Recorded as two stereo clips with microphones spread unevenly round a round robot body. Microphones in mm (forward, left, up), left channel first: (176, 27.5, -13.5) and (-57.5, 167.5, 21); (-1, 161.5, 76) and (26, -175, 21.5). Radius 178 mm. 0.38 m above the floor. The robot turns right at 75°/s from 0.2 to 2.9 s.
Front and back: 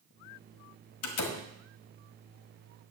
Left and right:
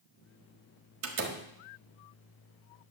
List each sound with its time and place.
1.0 s a door slam: 50° right, 1.5 m; by 1.4 s 20° right, 1.5 m